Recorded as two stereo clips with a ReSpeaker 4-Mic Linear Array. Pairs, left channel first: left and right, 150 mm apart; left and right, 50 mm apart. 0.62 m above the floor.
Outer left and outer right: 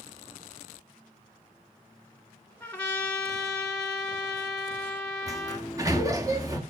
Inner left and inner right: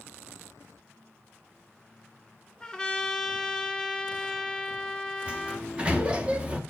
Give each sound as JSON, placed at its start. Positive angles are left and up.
{"t": 2.6, "sound": "a trumpet", "side_deg": 10, "distance_m": 1.4}
{"t": 5.3, "sound": "a sliding door", "side_deg": -25, "distance_m": 1.1}